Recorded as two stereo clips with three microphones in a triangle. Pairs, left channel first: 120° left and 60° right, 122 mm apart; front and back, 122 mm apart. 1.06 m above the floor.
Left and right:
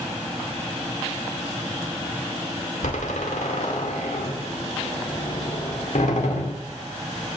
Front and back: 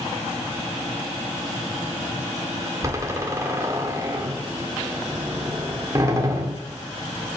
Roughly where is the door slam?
Behind left.